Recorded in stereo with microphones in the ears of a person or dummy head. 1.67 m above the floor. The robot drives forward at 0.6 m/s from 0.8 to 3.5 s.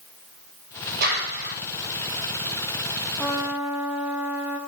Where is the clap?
65° right (ahead or behind), 6 m.